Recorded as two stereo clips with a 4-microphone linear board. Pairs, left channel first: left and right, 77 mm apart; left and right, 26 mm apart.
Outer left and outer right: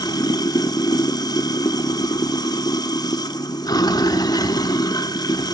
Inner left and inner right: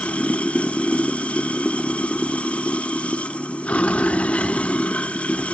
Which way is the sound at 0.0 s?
60° left (ahead or behind).